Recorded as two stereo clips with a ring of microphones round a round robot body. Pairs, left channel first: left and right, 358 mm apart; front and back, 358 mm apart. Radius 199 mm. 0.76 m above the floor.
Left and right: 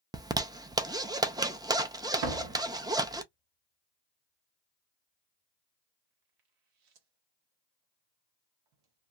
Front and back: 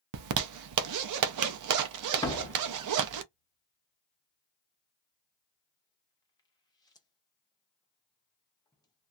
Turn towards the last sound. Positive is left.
turn(degrees=-80)